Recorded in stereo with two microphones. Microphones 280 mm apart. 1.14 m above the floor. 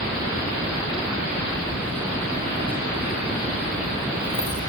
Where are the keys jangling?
5° left (ahead or behind), 8 m.